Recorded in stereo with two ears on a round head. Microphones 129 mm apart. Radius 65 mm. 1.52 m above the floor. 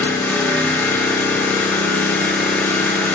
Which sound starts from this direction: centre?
An engine running, at 0.0 s.